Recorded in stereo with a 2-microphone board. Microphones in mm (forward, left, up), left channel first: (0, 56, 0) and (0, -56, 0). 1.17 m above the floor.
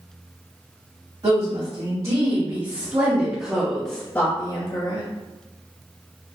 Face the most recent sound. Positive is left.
turn(degrees=55)  # may be behind; listen again after turning